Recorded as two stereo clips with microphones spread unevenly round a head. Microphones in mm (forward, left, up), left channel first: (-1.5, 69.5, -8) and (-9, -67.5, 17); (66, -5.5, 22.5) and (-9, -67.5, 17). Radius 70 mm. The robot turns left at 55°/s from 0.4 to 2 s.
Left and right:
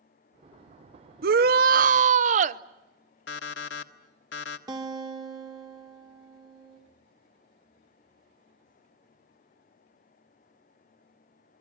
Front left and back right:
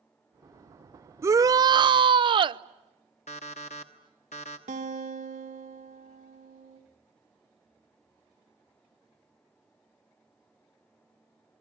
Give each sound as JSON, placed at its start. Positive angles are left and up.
{"t": 1.2, "sound": "a shout", "azimuth_deg": -85, "distance_m": 0.8}
{"t": 3.3, "sound": "an alarm clock", "azimuth_deg": 80, "distance_m": 1.1}
{"t": 4.7, "sound": "a guitar", "azimuth_deg": -155, "distance_m": 1.7}